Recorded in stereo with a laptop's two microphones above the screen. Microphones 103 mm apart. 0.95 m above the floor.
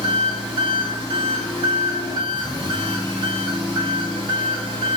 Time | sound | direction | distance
0.0 | an engine running | 45° right (ahead or behind) | 1.2 m